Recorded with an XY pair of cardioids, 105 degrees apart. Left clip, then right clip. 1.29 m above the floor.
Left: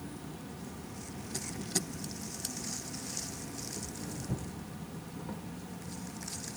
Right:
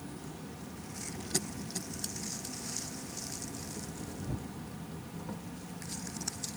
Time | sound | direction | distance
0.0 | an insect | straight ahead | ?